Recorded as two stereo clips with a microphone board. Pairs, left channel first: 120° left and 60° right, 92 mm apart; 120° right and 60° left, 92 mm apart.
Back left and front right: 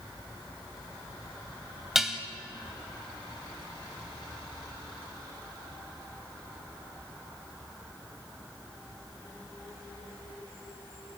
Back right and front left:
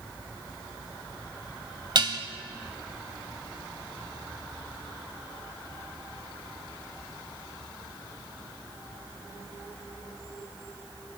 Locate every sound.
1.9 s dishes clattering: 25° left, 1.5 m